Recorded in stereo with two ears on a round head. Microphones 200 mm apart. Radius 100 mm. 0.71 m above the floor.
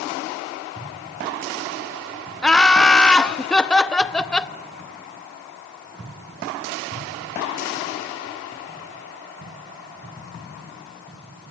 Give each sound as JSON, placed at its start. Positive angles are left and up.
{"t": 2.4, "sound": "laughter", "side_deg": 5, "distance_m": 0.7}